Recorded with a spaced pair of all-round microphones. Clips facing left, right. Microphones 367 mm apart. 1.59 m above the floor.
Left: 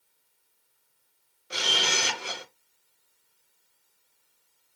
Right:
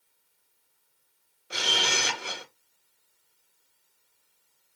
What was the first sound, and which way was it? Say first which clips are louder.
A camera shutter: even; centre (ahead or behind).